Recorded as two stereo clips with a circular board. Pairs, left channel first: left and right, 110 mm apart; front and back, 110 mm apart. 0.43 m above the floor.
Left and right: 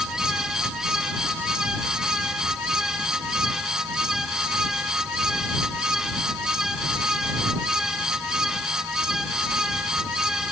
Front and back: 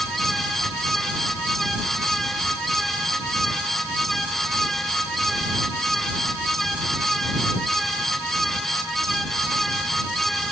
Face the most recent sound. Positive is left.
No sound to turn to.